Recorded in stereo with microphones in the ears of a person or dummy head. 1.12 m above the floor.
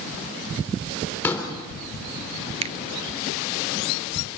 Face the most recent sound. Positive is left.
turn(degrees=-30)  # may be behind; listen again after turning